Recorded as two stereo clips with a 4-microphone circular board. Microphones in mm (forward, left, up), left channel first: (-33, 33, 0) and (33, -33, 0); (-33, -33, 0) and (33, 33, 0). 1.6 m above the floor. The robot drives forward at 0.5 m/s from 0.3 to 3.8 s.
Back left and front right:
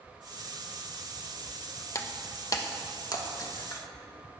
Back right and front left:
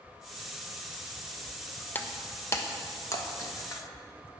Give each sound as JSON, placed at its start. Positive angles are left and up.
{"t": 1.9, "sound": "breaking glass", "azimuth_deg": 170, "distance_m": 0.8}